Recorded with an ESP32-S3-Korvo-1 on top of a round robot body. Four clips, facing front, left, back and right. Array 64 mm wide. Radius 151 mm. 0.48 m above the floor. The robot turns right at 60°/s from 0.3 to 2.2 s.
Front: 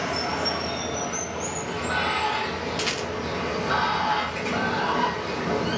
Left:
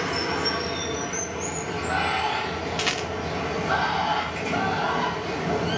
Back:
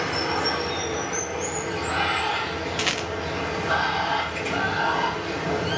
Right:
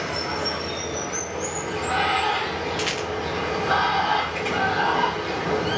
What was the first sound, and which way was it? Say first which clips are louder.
Running water: left 1 dB, back 2 dB; 140° left.